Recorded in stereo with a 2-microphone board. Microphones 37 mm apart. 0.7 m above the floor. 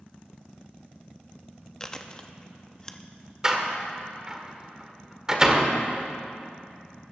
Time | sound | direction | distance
1.8 | chewing | 20° left (ahead or behind) | 0.8 m
3.4 | a door slam | 20° right (ahead or behind) | 1.6 m